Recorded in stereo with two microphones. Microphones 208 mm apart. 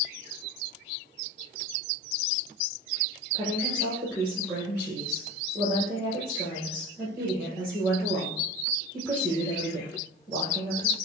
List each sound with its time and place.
3.3 s a woman speaking: 5° right (ahead or behind), 4 m